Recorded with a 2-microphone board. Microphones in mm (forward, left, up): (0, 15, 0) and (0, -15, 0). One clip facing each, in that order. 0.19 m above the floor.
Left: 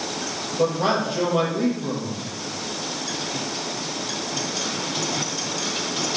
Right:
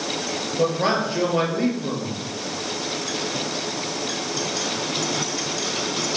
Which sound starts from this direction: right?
A man speaking, at 0.6 s.